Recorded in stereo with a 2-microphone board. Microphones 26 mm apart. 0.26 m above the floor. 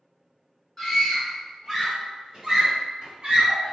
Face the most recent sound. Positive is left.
turn(degrees=-40)  # may be behind; listen again after turning